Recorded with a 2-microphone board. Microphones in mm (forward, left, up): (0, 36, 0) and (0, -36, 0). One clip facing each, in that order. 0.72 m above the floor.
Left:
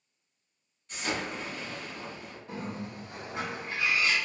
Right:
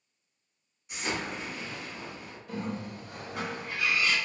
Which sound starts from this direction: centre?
An explosion, at 0.9 s.